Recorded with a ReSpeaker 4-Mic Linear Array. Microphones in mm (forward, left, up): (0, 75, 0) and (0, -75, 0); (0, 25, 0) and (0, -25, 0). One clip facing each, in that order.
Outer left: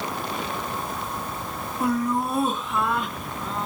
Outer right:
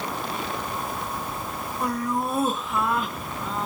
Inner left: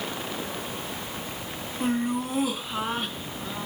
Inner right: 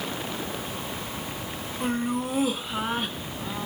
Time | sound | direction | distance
1.8 | laughter | centre (ahead or behind) | 1.3 m